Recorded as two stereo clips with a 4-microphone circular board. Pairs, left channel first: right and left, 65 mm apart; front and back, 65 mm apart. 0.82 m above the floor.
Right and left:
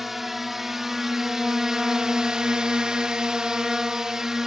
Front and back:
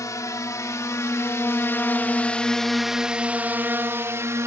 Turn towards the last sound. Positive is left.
turn(degrees=170)